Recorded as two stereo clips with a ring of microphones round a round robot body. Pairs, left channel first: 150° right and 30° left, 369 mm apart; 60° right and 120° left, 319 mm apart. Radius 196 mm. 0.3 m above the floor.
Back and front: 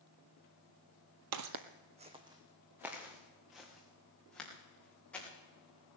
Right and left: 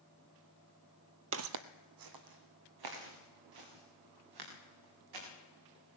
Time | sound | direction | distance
1.3 | footsteps | 70° left | 0.7 m